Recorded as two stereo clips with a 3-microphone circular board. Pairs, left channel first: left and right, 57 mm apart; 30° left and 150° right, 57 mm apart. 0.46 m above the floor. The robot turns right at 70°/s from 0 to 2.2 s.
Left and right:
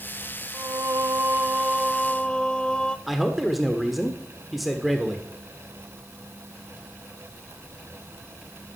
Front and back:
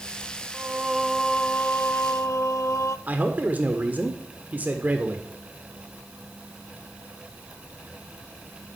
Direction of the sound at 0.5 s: 95° right.